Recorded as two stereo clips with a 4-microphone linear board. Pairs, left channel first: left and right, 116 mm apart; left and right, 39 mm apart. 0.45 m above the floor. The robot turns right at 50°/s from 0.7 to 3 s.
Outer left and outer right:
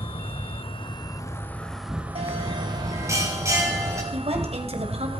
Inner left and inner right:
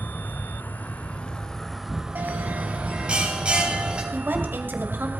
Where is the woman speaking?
65° right (ahead or behind), 2.5 m.